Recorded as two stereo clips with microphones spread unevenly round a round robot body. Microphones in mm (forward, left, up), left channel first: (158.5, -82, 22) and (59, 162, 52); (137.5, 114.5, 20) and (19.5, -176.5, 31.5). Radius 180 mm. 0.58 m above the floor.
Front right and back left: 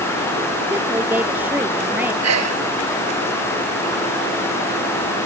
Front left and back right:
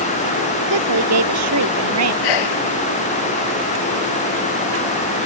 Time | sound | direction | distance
0.7 | a woman speaking | 165° right | ?
2.2 | a sneeze | 90° left | ?